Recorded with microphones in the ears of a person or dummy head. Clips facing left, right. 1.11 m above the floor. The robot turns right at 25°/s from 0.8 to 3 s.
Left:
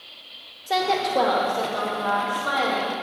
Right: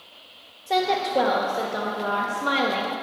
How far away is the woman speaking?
About 0.9 m.